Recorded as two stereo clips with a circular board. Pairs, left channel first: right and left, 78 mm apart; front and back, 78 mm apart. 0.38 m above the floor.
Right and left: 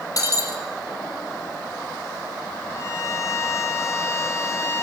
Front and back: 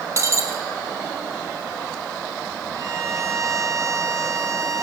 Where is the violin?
135° right, 1.8 m.